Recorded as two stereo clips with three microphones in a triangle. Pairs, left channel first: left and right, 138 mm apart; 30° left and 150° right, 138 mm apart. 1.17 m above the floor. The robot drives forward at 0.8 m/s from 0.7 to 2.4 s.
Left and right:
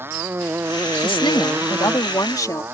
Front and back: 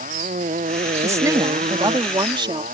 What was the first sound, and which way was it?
A motorcycle, 165° right.